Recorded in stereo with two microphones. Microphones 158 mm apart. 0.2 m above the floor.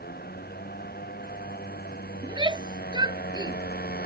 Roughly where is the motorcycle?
Left.